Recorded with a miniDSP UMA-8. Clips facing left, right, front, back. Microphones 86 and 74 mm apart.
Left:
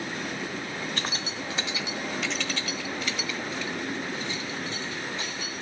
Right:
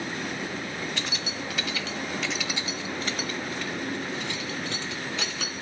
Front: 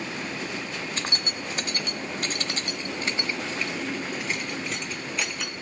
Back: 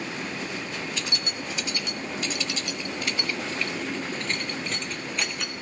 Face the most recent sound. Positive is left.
turn(degrees=-90)